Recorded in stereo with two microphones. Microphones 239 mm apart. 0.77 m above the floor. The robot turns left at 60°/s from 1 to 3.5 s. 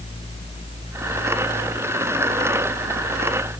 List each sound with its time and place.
Only background noise.